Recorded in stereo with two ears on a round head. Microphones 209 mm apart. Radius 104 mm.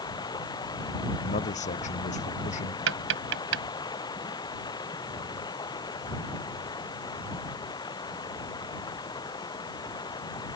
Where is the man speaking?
30° left (ahead or behind).